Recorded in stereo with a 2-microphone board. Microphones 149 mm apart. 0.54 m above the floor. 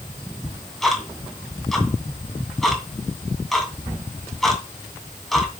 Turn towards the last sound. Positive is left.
turn(degrees=0)  # may be behind; listen again after turning